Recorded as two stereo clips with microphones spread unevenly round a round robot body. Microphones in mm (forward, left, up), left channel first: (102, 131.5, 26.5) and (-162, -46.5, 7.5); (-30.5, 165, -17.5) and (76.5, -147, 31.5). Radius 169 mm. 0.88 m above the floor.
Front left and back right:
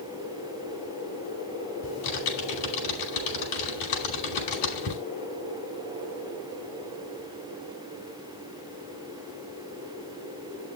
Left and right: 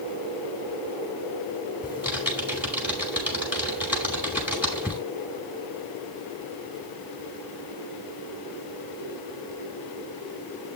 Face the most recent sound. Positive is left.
turn(degrees=15)